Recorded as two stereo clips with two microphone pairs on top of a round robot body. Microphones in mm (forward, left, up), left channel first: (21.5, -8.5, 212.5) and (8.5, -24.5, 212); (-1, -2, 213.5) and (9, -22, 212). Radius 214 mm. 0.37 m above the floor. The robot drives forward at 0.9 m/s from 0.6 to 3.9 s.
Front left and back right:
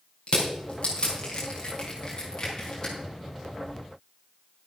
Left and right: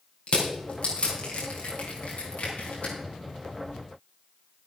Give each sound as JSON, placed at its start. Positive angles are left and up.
{"t": 0.3, "sound": "crushing", "azimuth_deg": 90, "distance_m": 4.0}